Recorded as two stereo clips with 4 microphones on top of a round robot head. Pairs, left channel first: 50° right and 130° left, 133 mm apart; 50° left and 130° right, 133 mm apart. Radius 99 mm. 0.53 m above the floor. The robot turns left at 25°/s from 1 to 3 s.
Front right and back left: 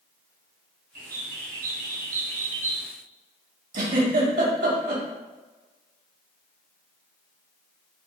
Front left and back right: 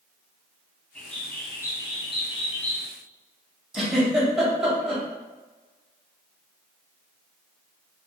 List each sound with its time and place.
0.9 s a bird: 135° left, 1.7 m; by 2.9 s 90° left, 1.7 m
3.7 s a giggle: 145° left, 2.5 m